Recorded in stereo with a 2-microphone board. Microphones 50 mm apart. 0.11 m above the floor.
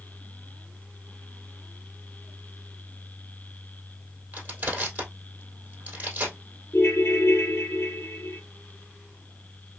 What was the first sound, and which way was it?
Crushing, 40° right (ahead or behind).